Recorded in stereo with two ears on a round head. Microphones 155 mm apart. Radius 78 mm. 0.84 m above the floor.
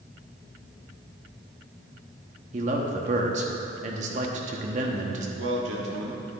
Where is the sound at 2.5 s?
40° right (ahead or behind), 1.1 m.